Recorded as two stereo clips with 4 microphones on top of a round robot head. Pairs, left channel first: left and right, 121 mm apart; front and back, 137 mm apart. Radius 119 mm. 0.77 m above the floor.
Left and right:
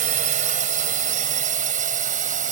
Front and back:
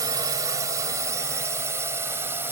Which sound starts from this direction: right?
A drone, at 0.0 s.